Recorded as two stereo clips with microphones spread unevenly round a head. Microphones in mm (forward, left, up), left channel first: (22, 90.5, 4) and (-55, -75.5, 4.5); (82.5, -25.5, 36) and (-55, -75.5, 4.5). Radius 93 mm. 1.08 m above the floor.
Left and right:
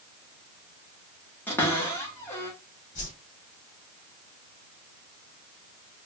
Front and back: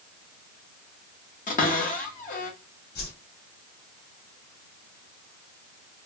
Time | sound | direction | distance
1.5 | a cupboard door | 15° right | 1.4 m
3.0 | a whoosh | 15° left | 2.5 m